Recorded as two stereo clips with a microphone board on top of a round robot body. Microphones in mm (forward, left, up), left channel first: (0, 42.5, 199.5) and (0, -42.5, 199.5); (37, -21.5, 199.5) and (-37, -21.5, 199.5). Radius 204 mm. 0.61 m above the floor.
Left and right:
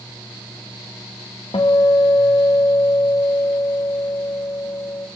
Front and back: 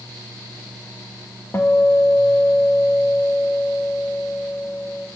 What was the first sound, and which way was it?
A guitar, 60° left.